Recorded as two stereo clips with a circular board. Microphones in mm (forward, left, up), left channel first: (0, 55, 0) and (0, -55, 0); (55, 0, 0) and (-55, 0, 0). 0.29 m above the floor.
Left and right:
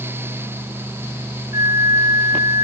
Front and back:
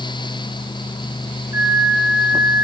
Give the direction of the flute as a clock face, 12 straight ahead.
4 o'clock.